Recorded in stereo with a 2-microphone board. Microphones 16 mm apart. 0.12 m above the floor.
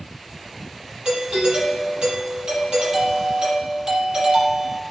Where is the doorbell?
65° right (ahead or behind), 5 m.